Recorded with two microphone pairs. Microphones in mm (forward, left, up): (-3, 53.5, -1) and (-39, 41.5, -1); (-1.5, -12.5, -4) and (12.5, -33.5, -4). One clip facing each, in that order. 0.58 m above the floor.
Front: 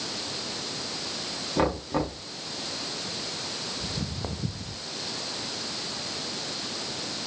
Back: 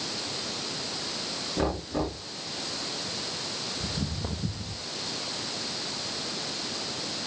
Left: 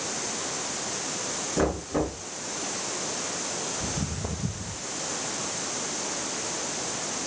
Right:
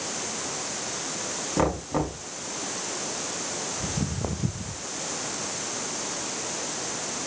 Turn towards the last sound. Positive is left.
turn(degrees=-30)